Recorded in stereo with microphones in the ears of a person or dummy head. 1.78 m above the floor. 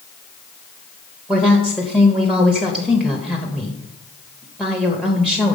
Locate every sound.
1.3 s a woman speaking: 5° right (ahead or behind), 0.6 m